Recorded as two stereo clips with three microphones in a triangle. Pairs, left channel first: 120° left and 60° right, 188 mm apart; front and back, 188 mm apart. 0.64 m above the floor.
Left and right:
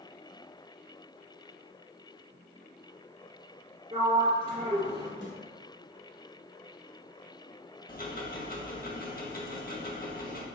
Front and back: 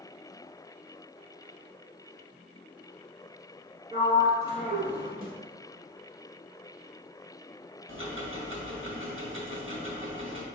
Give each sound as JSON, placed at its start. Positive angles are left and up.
{"t": 3.9, "sound": "a sliding door", "azimuth_deg": -125, "distance_m": 1.9}
{"t": 5.2, "sound": "a snare drum", "azimuth_deg": 135, "distance_m": 1.0}
{"t": 7.9, "sound": "ticking", "azimuth_deg": 165, "distance_m": 0.8}